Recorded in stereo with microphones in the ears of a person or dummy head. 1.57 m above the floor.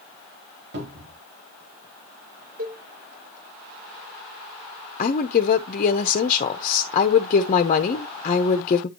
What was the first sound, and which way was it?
A cupboard door, 50° right (ahead or behind).